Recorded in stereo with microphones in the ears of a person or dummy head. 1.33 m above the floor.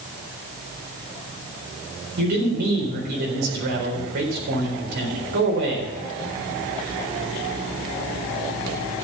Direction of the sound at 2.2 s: 55° right (ahead or behind).